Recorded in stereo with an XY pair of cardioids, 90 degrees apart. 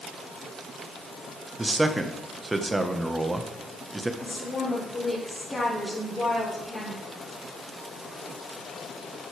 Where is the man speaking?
20° right, 1.5 m.